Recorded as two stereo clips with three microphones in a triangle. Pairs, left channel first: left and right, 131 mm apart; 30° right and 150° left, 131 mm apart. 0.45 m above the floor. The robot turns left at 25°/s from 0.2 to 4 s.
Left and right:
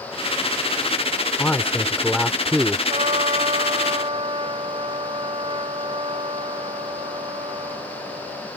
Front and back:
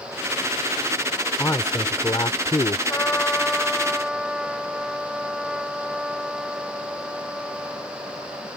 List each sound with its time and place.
1.4 s a man speaking: 25° left; by 2.8 s 10° right
2.9 s a trumpet: 95° right; by 8.5 s 125° right